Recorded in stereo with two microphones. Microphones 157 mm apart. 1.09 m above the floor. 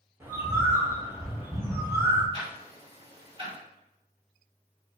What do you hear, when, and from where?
0.2 s a bird: 15° right (ahead or behind), 0.9 m
2.3 s ticking: 35° right (ahead or behind), 1.0 m